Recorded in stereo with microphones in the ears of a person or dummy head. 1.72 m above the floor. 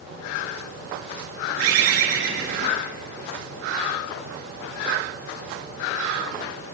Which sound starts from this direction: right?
A bird, at 1.6 s.